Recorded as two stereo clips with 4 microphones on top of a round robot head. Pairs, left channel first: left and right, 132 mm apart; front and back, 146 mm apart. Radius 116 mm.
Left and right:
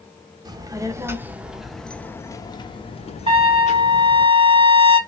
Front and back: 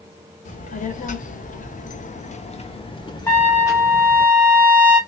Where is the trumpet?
65° right, 1.3 m.